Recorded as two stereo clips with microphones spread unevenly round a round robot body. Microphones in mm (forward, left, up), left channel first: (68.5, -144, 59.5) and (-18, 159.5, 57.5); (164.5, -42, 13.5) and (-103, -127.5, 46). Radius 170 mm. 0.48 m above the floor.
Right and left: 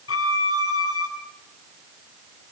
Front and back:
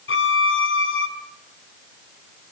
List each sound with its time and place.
0.1 s a violin: 25° right, 4.5 m